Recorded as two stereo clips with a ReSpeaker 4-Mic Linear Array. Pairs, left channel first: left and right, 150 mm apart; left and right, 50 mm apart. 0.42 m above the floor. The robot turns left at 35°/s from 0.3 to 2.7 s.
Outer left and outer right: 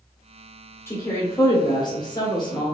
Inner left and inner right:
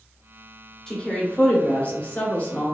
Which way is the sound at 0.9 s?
145° left.